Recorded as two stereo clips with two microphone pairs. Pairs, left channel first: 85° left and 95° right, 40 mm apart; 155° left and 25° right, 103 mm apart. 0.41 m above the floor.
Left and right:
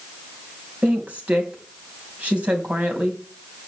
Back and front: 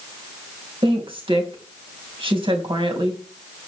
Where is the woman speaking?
50° right, 3 m.